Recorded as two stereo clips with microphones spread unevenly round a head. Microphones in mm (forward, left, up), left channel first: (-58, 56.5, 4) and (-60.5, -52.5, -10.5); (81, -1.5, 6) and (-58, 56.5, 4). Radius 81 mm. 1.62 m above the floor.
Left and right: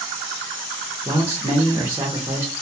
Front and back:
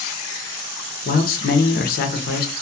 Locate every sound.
1.1 s a man speaking: 10° right, 0.6 m